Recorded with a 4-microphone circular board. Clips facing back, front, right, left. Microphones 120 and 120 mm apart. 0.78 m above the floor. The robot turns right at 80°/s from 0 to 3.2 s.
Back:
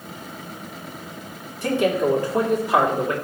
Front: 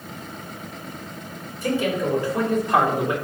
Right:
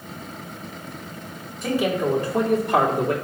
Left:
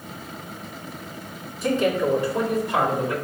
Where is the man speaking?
175° left, 1.9 m; by 3.1 s 60° right, 1.9 m.